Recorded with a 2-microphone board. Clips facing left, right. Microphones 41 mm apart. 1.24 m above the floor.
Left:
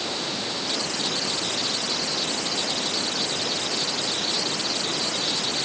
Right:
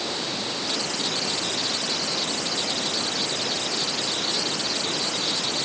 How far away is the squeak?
No squeak in this recording.